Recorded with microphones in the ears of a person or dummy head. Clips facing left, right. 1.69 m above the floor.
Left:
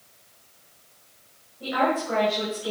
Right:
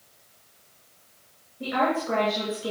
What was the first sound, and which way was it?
A woman speaking, 40° right (ahead or behind).